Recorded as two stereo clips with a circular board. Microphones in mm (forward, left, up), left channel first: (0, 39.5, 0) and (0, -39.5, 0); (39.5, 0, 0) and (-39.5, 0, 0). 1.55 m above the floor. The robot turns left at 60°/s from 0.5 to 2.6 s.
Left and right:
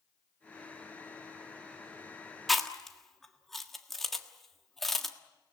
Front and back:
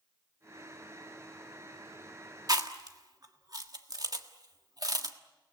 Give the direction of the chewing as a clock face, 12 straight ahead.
6 o'clock.